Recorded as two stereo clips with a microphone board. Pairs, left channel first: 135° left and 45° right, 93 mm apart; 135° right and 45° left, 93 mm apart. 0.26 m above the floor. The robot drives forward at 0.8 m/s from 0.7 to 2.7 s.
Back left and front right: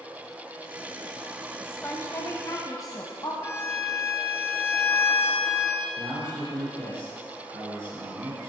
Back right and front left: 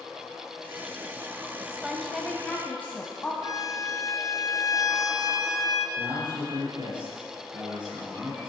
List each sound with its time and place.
1.6 s a woman speaking: 100° left, 1.0 m; by 3.3 s 155° left, 1.3 m
3.4 s a violin: 170° right, 1.0 m
6.0 s a man speaking: 10° left, 5 m